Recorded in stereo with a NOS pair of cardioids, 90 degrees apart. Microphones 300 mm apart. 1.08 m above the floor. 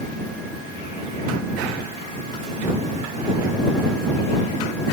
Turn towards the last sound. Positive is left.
No sound to turn to.